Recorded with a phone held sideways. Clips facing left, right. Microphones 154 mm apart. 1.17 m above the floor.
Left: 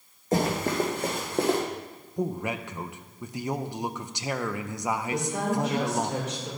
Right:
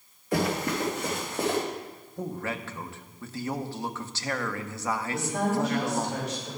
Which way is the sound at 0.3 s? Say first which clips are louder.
Left 2 dB; 45° left (ahead or behind).